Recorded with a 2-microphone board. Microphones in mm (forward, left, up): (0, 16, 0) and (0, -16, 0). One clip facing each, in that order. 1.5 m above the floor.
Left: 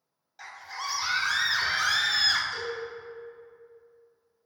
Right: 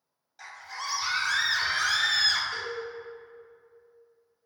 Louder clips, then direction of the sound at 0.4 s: Left 1 dB; 5° left (ahead or behind).